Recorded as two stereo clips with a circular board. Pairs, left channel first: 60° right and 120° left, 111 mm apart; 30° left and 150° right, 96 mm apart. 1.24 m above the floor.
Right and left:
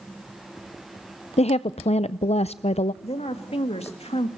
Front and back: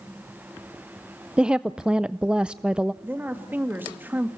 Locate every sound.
1.4 s a woman speaking: 70° right, 0.5 m
3.0 s a woman speaking: 80° right, 2.0 m